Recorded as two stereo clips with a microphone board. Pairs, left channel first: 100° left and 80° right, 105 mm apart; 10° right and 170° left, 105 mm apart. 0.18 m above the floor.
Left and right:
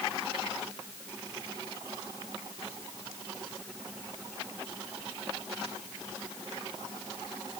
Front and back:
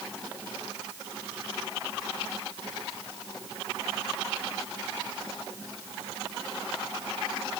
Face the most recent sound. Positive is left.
No sound to turn to.